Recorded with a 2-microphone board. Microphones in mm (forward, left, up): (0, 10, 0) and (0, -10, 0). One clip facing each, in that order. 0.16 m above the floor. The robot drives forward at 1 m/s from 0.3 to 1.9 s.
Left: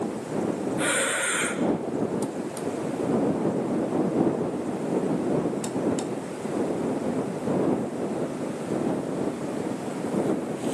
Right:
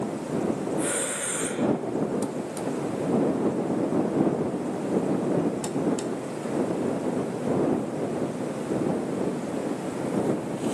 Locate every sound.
0.8 s breathing: 55° left (ahead or behind), 3 m; by 1.6 s 70° left (ahead or behind), 3 m